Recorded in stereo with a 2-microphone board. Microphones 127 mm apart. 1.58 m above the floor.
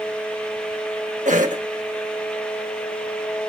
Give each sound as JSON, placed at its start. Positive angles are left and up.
{"t": 1.2, "sound": "a cough", "side_deg": -75, "distance_m": 1.5}